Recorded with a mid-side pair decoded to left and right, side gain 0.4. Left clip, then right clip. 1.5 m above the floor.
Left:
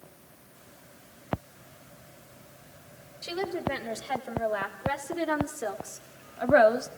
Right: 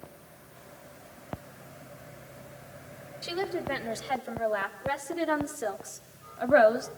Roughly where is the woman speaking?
Ahead.